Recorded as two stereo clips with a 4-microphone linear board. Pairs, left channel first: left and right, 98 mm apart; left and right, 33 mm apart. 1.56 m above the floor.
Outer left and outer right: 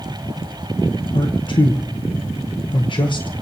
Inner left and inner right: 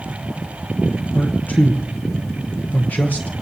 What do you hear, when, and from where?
1.1 s a man speaking: 55° left (ahead or behind), 1.1 m